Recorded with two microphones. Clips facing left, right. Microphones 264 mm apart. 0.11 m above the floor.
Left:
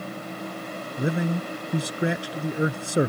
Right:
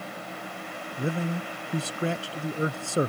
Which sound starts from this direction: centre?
A man speaking, at 1.0 s.